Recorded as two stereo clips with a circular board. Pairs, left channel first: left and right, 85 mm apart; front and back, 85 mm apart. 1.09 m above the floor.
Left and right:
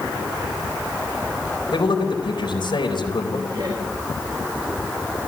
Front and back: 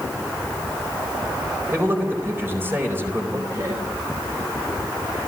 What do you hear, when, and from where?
1.7 s a man speaking: 115° left, 4.5 m
3.5 s laughter: 130° right, 4.5 m